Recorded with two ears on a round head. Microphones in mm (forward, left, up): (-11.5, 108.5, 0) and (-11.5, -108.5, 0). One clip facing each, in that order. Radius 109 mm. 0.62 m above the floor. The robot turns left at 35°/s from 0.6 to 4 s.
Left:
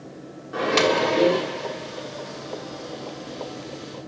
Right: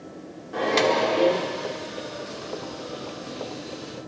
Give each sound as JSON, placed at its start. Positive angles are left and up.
{"t": 0.5, "sound": "a microwave", "azimuth_deg": 170, "distance_m": 1.0}